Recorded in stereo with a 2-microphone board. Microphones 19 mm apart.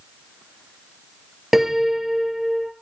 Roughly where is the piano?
Right.